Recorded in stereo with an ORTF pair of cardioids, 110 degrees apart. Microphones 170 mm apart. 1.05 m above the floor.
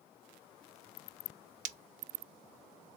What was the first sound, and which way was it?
Breaking glass, 50° right.